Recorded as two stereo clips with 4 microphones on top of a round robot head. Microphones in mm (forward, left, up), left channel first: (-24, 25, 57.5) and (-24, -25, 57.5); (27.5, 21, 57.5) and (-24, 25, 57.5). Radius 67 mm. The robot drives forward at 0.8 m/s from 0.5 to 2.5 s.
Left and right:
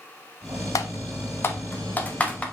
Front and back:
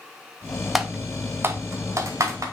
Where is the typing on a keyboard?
90° left, 0.7 m; by 2.4 s 155° left, 1.5 m.